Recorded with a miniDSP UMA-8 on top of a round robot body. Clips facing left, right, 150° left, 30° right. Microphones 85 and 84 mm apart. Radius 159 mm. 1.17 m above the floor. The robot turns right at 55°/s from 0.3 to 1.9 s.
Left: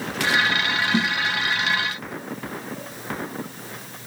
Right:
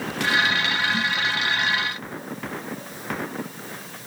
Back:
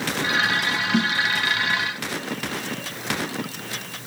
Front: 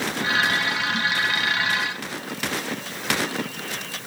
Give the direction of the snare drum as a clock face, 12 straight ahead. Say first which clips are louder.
Left 3 dB, back 3 dB; 8 o'clock.